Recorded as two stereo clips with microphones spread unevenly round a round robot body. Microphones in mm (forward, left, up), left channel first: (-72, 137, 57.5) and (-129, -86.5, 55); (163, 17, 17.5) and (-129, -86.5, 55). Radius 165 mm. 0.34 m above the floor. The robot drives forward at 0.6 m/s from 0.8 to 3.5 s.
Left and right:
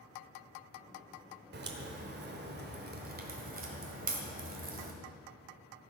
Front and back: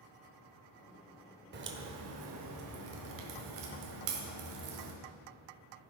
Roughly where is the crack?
Right.